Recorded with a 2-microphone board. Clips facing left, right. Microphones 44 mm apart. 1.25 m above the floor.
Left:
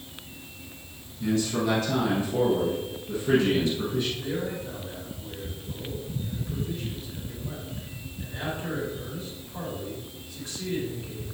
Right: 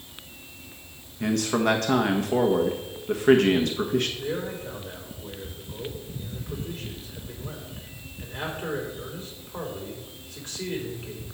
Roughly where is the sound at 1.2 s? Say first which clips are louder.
Right 2 dB; right.